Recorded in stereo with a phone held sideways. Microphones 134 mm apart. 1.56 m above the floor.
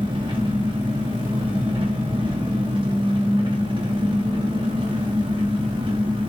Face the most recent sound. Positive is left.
turn(degrees=-40)  # may be behind; listen again after turning